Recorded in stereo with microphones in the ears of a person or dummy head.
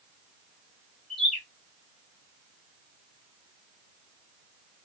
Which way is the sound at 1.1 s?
5° left (ahead or behind).